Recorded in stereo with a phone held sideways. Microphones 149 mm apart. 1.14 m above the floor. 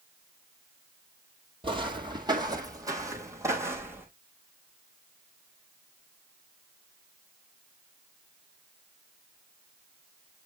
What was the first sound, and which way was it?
Footsteps, 35° right (ahead or behind).